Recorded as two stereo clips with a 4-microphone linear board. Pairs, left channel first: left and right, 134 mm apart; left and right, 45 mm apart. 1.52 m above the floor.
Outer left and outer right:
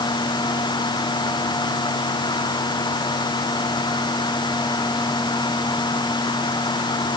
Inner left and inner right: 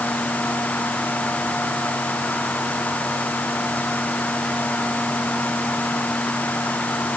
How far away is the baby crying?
I don't hear a baby crying.